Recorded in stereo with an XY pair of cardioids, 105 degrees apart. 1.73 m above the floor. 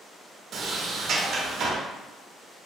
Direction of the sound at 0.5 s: 60° right.